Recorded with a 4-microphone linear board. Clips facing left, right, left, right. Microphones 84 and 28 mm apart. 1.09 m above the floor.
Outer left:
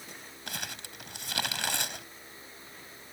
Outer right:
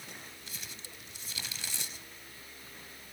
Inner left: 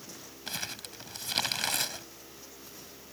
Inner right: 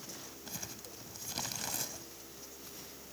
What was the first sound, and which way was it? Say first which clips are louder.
Crumpling: outer left 8 dB, inner left 11 dB; 70° left (ahead or behind).